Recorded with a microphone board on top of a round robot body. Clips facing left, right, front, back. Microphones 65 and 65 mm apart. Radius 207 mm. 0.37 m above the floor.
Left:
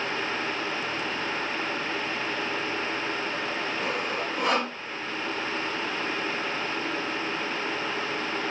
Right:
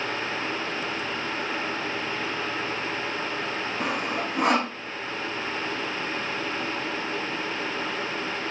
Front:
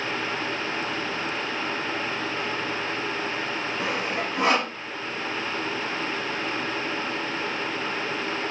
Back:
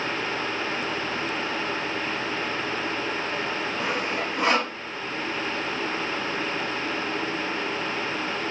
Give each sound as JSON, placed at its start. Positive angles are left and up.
{"t": 3.8, "sound": "sawing", "azimuth_deg": -65, "distance_m": 6.5}